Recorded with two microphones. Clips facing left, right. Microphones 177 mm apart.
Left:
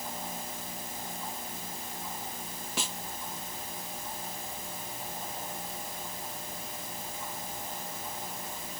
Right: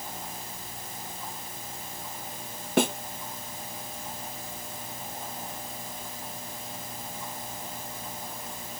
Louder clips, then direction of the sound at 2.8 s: Right 15 dB; 60° right (ahead or behind).